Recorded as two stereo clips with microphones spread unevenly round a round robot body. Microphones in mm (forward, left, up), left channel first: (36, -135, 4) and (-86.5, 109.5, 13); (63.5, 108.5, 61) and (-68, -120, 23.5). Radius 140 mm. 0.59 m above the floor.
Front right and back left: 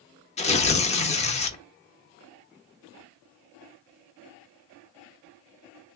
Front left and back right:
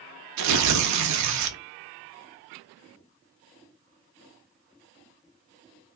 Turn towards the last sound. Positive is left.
turn(degrees=-130)